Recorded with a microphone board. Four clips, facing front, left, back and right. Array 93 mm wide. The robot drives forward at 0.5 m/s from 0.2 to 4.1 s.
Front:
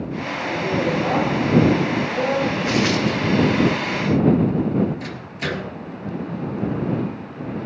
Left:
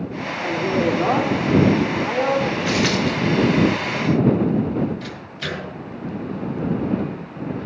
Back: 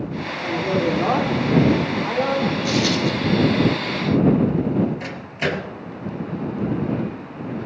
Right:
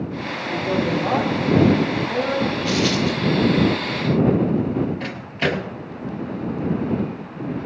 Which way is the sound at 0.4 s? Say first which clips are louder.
Left 2 dB, back 1 dB; 115° left.